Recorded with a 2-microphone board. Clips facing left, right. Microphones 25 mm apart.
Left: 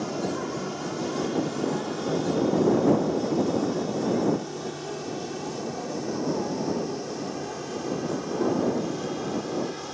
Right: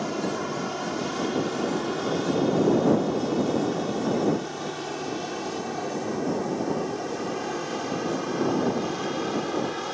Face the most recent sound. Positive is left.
turn(degrees=-25)  # may be behind; listen again after turning